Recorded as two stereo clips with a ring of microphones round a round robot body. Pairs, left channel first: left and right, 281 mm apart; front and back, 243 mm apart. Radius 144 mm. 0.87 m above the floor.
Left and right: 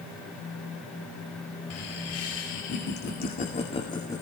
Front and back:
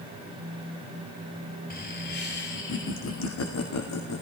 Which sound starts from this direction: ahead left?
Laughter, at 1.7 s.